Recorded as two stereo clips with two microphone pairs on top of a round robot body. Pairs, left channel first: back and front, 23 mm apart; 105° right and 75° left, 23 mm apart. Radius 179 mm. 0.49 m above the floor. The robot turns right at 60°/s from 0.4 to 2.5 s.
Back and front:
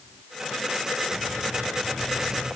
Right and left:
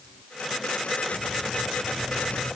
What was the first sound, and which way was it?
Only background noise.